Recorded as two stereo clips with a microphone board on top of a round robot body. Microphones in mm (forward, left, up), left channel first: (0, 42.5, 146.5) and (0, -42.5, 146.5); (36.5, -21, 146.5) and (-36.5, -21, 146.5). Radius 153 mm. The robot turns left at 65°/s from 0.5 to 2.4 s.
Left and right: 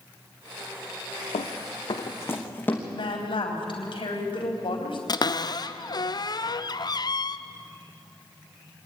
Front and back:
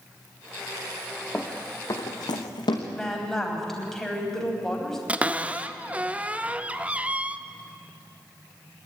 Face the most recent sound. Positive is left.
turn(degrees=110)